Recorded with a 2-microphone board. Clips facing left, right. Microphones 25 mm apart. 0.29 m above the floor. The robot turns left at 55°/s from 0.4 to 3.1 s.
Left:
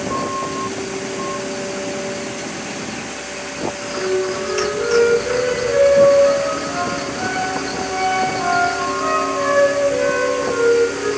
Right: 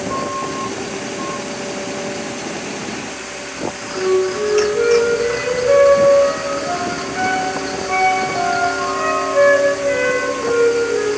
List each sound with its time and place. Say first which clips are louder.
4.0 s a flute: right 4 dB; 75° right (ahead or behind), 5 m